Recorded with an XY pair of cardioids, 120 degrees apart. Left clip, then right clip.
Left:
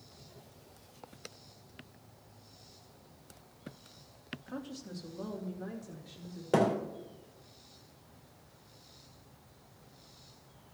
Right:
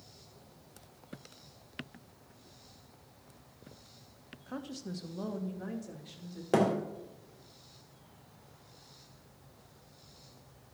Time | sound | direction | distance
4.5 | a woman speaking | 25° right | 1.3 m
6.5 | a thud | 15° right | 2 m